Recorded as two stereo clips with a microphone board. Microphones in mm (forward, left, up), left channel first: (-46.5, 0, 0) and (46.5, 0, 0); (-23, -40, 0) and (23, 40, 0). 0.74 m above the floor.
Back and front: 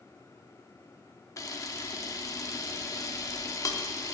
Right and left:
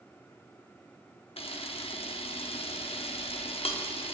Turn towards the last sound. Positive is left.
turn(degrees=-125)